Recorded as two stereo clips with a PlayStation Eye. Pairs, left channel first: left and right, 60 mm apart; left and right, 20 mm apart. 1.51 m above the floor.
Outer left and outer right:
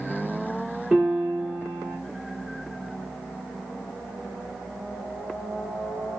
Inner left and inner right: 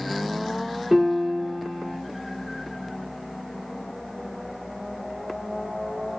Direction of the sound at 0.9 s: 5° right (ahead or behind).